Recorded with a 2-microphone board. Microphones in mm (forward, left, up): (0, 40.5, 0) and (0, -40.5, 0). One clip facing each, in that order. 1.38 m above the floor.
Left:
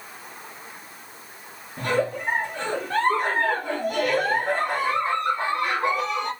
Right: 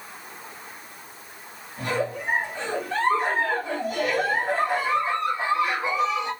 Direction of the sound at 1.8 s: 55° left (ahead or behind).